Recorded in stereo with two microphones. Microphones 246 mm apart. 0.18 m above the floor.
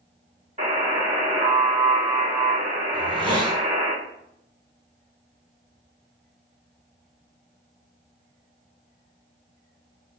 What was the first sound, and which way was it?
A buzzer, 30° right (ahead or behind).